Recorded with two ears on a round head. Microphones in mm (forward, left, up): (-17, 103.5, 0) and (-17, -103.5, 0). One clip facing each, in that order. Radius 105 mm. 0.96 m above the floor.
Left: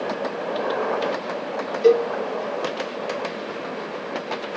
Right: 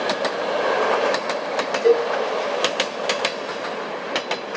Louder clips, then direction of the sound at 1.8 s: Left 1 dB; 45° left (ahead or behind).